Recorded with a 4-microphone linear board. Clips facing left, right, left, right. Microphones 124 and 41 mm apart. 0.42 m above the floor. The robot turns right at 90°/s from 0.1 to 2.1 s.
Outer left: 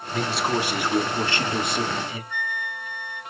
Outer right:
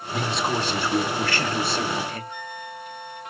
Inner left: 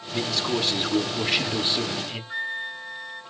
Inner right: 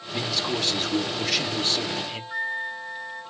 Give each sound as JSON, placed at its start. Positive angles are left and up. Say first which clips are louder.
{"t": 0.1, "sound": "a man speaking", "louder": "outer left 1 dB, inner left 1 dB", "side_deg": -5, "distance_m": 0.8}
{"t": 2.3, "sound": "a flute", "louder": "outer left 2 dB, inner right 2 dB", "side_deg": 50, "distance_m": 0.9}